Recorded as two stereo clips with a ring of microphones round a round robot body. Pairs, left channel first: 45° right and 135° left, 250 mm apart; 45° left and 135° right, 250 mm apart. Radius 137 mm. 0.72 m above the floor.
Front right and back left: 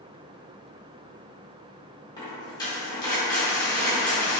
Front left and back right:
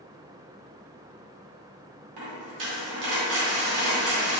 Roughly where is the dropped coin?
Behind right.